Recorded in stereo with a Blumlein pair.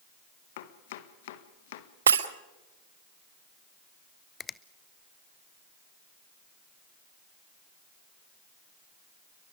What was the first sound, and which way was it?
Chopping, 55° left.